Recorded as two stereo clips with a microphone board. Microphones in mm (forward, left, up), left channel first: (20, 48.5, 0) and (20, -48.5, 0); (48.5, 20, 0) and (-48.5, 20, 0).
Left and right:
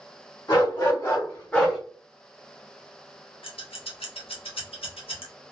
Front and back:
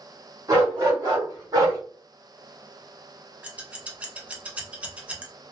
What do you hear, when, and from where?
0.5 s a dog barking: 130° left, 2 m; by 1.8 s straight behind, 1.0 m
3.4 s scissors: 105° left, 0.9 m